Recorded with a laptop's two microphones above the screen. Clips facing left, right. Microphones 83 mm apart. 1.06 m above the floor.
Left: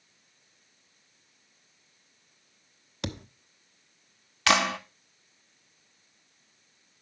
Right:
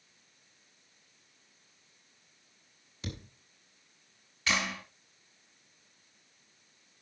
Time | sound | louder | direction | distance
3.0 | a thud | left 7 dB | 70° left (ahead or behind) | 1.1 m
4.5 | a clap | left 9 dB | 70° left (ahead or behind) | 1.1 m